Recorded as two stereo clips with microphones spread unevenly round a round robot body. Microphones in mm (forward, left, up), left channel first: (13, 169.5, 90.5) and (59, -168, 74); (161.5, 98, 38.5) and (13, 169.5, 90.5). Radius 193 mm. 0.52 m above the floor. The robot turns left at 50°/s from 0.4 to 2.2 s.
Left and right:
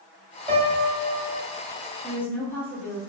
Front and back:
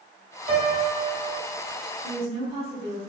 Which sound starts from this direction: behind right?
A piano, at 0.5 s.